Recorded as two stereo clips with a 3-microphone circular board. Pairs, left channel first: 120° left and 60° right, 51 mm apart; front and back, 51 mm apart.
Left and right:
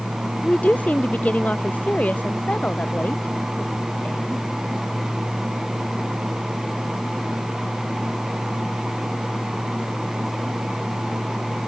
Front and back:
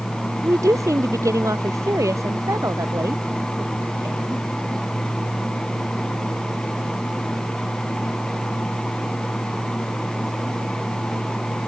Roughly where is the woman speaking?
Behind.